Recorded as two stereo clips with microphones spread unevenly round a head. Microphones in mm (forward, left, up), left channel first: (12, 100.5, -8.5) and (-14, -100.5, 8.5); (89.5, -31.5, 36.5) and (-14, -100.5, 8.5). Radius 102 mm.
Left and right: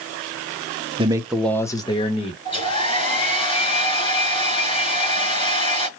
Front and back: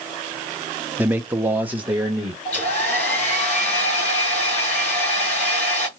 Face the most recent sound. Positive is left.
turn(degrees=15)